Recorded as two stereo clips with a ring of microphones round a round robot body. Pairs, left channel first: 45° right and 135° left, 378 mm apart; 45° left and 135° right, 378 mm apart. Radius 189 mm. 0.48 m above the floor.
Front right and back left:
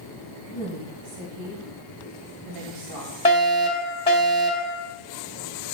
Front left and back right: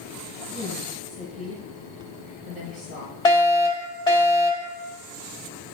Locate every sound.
0.5 s a woman speaking: 125° left, 2 m; by 3.1 s 165° left, 2.5 m
3.2 s a fire alarm: 10° right, 1.9 m